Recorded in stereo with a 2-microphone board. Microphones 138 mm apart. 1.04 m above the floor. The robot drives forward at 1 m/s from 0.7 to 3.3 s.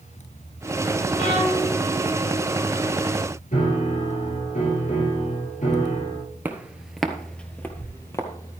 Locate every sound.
1.2 s a violin: 70° left (ahead or behind), 6.5 m; by 1.7 s 75° left (ahead or behind), 6 m
3.5 s a piano: 65° left (ahead or behind), 6.5 m
6.5 s footsteps: 15° right (ahead or behind), 1.2 m; by 8.6 s 25° left (ahead or behind), 1.9 m